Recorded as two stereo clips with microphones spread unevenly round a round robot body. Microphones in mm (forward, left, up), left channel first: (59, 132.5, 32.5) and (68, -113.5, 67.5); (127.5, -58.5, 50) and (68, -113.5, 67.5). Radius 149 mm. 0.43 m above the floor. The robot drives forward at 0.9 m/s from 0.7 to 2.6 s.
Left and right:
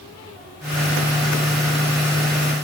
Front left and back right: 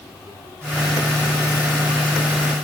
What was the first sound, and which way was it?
Only background noise.